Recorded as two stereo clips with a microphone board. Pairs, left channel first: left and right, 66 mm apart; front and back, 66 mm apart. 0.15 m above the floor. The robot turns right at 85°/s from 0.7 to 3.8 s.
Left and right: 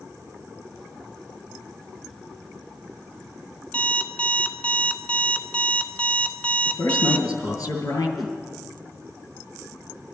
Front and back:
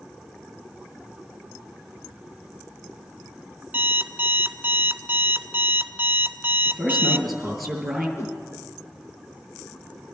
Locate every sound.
3.7 s an alarm clock: 145° left, 0.9 m; by 7.3 s 150° left, 0.9 m
6.7 s a man speaking: 90° left, 3 m
8.2 s a whoosh: 5° right, 1.3 m